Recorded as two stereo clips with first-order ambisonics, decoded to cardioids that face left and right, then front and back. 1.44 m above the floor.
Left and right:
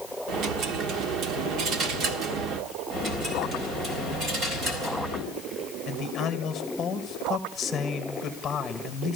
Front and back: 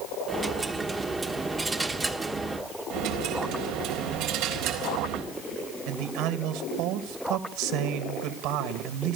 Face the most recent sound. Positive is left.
turn(degrees=165)